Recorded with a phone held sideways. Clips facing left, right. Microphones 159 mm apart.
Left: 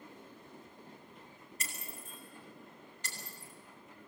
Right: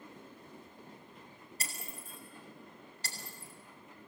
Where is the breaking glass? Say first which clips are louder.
Right 1 dB; 35° right (ahead or behind), 6 m.